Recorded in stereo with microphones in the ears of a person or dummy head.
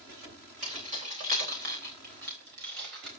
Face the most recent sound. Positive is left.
turn(degrees=-75)  # may be behind; listen again after turning